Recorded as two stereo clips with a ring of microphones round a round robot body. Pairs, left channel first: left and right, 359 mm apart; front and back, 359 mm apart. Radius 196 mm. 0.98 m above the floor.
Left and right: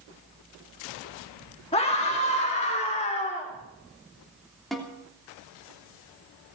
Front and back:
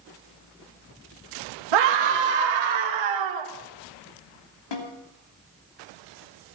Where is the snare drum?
Straight ahead, 3 m.